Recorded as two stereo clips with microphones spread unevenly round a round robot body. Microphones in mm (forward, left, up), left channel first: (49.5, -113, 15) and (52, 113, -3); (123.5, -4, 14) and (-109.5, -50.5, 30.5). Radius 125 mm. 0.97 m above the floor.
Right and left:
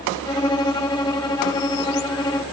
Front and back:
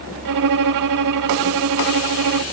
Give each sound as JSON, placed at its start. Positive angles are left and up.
{"t": 0.2, "sound": "a violin", "azimuth_deg": -165, "distance_m": 0.7}